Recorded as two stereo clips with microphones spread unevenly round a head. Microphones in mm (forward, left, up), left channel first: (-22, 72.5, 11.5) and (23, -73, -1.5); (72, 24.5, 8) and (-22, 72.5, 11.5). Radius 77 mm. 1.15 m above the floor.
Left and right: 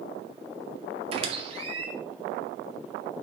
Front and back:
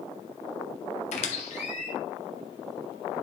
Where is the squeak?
15° right, 1.9 m.